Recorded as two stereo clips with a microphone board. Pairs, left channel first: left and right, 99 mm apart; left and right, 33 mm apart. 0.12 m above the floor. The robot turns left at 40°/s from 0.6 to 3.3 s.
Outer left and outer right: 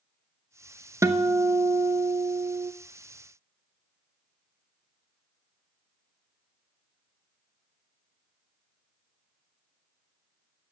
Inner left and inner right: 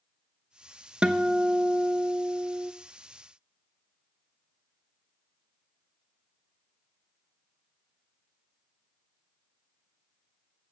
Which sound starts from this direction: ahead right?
A guitar, at 1.0 s.